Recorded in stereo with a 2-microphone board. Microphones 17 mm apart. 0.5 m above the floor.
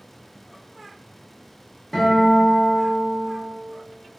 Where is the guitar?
15° left (ahead or behind), 0.9 m.